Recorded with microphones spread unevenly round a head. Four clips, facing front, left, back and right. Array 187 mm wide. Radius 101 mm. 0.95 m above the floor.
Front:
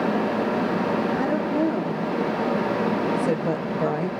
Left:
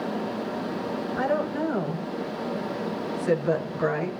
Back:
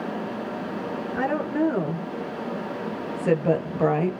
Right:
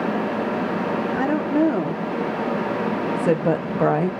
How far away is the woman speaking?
About 3 m.